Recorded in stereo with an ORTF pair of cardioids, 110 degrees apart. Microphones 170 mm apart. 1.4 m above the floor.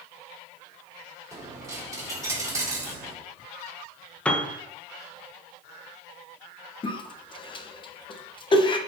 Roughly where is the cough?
Ahead left.